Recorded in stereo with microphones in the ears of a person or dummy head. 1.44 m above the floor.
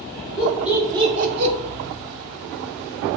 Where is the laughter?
5° left (ahead or behind), 1.5 m; by 1.5 s 70° right (ahead or behind), 0.9 m.